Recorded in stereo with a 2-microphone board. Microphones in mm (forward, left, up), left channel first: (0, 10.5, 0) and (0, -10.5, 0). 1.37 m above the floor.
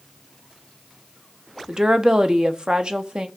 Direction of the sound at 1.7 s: 45° right (ahead or behind).